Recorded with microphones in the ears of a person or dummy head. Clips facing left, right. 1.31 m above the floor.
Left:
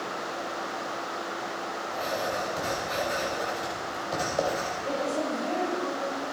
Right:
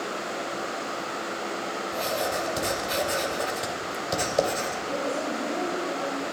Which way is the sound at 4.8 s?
90° left.